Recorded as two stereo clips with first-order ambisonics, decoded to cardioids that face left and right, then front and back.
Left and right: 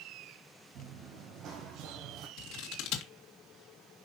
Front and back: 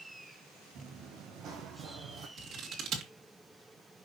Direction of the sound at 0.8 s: 125° right.